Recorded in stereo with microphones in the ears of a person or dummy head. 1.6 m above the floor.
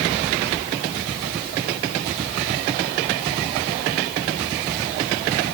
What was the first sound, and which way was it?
Only background noise.